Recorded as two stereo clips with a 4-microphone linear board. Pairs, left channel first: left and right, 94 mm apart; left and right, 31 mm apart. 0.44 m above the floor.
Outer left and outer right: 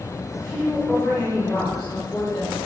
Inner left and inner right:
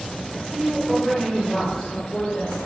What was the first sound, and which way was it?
A woman speaking, 10° left (ahead or behind).